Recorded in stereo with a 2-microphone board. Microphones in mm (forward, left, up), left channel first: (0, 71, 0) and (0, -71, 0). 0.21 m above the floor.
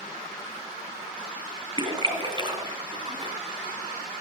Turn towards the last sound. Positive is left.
turn(degrees=-35)  # may be behind; listen again after turning